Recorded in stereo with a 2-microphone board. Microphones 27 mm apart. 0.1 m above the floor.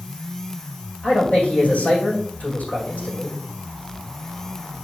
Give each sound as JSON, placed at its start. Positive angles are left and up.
{"t": 1.0, "sound": "a man speaking", "side_deg": 65, "distance_m": 4.0}